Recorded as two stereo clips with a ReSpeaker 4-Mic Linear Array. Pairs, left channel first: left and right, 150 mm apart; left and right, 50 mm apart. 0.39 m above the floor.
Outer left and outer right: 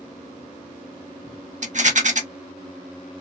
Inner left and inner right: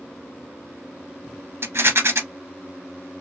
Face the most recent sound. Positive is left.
turn(degrees=-55)  # may be behind; listen again after turning